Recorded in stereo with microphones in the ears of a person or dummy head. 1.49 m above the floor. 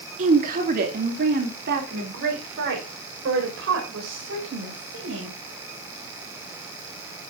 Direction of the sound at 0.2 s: 45° right (ahead or behind).